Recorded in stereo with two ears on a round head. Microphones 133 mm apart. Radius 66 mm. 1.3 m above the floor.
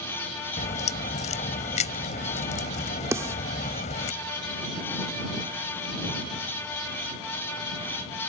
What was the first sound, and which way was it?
A crack, 50° left (ahead or behind).